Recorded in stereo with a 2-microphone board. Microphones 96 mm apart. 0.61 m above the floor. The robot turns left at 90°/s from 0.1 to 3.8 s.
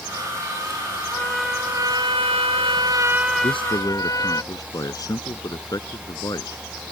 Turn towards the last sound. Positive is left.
turn(degrees=40)